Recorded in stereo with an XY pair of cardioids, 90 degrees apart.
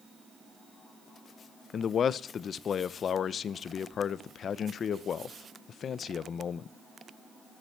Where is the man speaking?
60° left, 0.7 m.